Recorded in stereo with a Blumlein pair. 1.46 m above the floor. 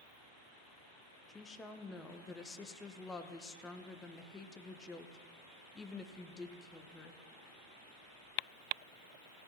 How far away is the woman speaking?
About 0.9 m.